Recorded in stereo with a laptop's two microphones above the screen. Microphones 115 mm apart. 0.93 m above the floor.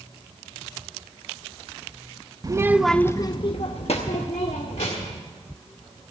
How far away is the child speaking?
About 0.6 m.